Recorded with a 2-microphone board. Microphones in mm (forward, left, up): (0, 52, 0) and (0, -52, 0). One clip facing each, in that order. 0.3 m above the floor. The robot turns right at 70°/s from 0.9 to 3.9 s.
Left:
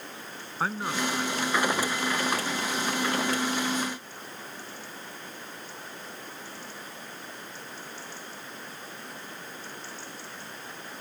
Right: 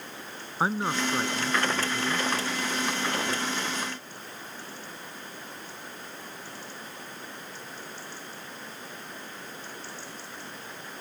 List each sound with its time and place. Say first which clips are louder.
0.6 s a man speaking: right 2 dB; 160° right; by 2.3 s 65° right